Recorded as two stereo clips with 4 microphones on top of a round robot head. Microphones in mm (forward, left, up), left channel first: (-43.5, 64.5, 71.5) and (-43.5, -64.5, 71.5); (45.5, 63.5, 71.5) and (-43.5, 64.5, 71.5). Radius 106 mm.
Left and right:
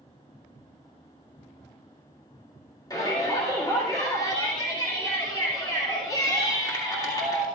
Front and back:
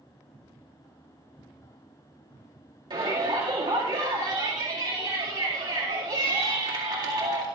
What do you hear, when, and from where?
2.9 s a shout: 150° left, 2 m